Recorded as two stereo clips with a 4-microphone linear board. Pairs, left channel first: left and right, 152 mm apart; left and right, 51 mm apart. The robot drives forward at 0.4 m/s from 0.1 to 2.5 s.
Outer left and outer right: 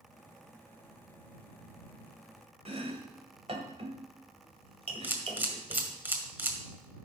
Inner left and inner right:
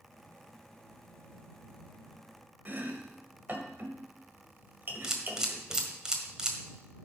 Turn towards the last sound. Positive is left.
turn(degrees=-10)  # may be behind; listen again after turning